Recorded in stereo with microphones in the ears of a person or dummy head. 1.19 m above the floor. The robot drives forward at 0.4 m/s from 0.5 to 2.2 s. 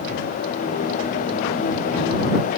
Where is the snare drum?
I don't hear a snare drum.